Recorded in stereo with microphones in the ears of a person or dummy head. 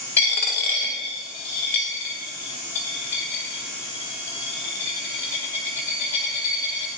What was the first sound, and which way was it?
A dropped coin, 15° left (ahead or behind).